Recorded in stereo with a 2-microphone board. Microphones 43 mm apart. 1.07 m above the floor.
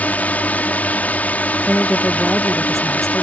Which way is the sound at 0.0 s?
40° left (ahead or behind).